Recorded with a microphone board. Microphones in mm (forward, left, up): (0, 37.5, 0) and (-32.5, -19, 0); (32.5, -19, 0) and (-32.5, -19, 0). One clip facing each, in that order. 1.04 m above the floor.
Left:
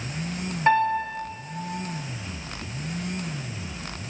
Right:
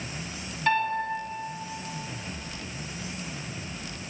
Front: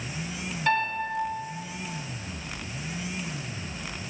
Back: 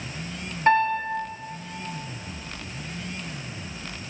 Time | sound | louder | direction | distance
0.7 | a piano | left 5 dB, back 6 dB | 120° left | 2.5 m